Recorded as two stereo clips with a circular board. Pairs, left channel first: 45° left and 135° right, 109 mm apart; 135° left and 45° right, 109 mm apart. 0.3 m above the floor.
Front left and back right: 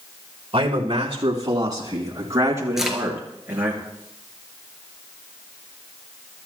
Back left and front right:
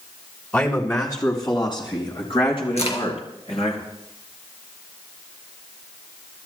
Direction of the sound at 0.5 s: 160° right.